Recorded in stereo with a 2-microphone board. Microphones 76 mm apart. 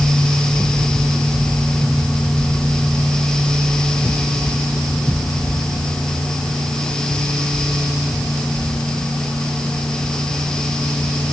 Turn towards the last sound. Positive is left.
No sound to turn to.